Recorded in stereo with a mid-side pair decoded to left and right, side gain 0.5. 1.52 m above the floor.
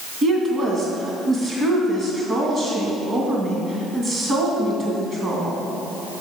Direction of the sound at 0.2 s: 40° right.